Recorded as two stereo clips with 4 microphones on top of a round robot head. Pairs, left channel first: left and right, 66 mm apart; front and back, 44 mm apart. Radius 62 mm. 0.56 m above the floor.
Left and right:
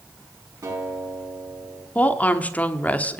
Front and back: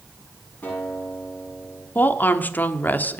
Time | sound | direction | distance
0.6 | a guitar | 55° right | 6.5 m
1.9 | a woman speaking | 30° left | 1.1 m